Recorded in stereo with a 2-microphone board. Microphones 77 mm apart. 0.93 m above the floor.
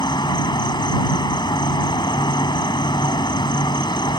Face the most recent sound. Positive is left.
turn(degrees=80)